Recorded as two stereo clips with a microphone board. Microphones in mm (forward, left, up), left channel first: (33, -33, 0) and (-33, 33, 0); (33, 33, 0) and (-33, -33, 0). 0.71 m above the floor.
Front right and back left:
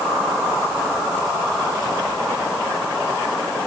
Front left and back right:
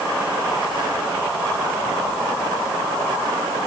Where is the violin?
No violin in this recording.